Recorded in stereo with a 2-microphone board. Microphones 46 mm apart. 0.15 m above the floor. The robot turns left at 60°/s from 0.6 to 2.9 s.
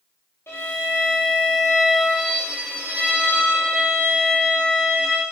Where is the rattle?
I don't hear a rattle.